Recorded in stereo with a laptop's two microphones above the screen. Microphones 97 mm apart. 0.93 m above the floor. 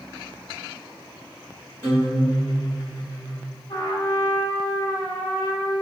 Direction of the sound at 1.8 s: 25° left (ahead or behind).